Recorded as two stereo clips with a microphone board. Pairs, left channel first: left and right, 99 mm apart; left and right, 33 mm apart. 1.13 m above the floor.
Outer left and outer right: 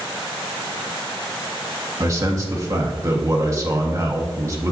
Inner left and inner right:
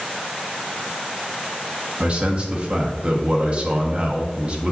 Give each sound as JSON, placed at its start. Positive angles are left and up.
{"t": 2.0, "sound": "a man speaking", "side_deg": -30, "distance_m": 1.2}